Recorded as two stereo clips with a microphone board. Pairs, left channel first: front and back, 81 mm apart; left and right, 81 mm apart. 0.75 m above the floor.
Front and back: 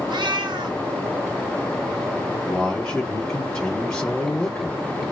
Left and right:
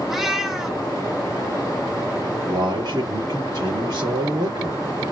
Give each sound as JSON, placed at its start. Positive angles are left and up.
{"t": 0.1, "sound": "a cat meowing", "azimuth_deg": -175, "distance_m": 1.5}
{"t": 2.5, "sound": "a man speaking", "azimuth_deg": -80, "distance_m": 2.0}